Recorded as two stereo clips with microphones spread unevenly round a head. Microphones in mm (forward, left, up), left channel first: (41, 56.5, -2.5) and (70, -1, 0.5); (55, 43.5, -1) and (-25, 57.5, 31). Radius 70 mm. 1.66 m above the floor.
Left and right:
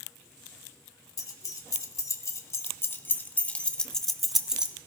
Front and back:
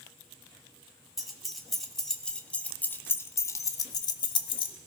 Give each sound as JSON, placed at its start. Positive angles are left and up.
{"t": 1.2, "sound": "keys jangling", "azimuth_deg": 95, "distance_m": 1.8}